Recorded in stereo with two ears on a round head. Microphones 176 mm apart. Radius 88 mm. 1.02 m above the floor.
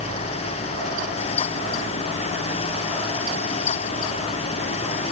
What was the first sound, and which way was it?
Only background noise.